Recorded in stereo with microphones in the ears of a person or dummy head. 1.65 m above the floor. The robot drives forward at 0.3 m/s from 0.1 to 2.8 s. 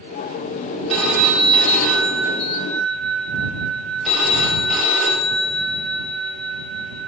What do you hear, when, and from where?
0.9 s a phone ringing: centre (ahead or behind), 0.7 m